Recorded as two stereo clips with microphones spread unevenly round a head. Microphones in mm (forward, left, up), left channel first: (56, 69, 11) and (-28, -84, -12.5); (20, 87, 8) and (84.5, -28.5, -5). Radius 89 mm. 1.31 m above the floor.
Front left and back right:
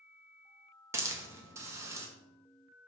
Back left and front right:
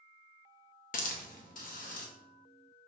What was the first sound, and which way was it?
A hiss, 165° left.